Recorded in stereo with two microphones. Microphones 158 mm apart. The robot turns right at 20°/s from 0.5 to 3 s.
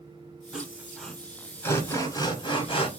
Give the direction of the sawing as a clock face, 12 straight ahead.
12 o'clock.